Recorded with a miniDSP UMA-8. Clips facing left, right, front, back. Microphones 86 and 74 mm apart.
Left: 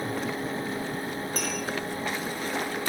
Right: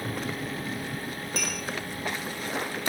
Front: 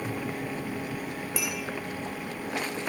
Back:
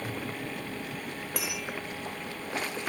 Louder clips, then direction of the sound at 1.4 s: Even, front 2 dB; 145° left.